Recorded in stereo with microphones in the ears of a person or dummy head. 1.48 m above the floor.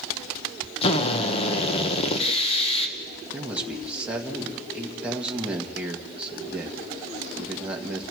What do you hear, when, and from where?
0.8 s a drill: 30° left (ahead or behind), 1.5 m
3.3 s a man speaking: 5° right (ahead or behind), 1.6 m